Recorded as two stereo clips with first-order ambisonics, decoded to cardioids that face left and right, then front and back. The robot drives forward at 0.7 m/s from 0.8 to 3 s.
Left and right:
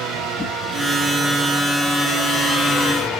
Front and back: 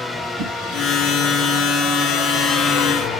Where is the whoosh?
Straight behind, 4 m.